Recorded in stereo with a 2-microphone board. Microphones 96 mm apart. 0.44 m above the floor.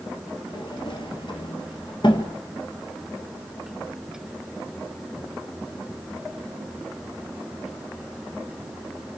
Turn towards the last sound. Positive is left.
turn(degrees=60)  # may be behind; listen again after turning